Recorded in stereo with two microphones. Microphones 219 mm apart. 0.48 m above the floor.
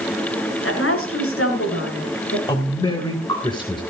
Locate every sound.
0.6 s a woman speaking: 75° left (ahead or behind), 6 m; by 2.4 s 85° left, 7.5 m
2.5 s a man speaking: 20° left (ahead or behind), 2.5 m